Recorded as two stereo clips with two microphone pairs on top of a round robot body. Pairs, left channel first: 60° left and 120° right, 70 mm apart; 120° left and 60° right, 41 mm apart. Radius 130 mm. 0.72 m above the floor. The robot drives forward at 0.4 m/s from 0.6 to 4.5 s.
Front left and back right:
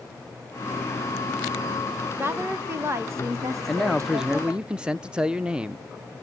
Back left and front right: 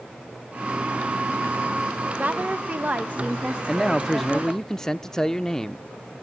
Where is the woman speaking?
75° right, 1.9 m; by 4.6 s 105° right, 2.0 m.